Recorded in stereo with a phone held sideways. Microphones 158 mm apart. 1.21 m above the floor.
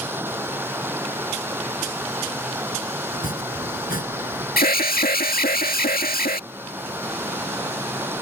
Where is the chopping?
65° left (ahead or behind).